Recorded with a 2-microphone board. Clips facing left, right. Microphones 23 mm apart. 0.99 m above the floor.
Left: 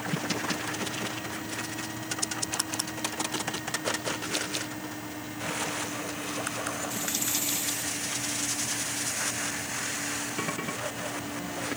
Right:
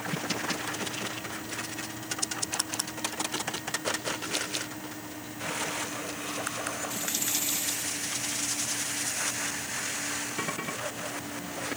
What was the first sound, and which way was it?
Only background noise.